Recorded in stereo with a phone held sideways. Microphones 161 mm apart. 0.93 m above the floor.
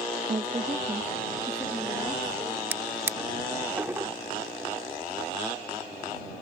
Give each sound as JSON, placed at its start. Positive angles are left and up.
{"t": 0.3, "sound": "a woman speaking", "side_deg": -45}
{"t": 2.7, "sound": "a drawer", "side_deg": -15}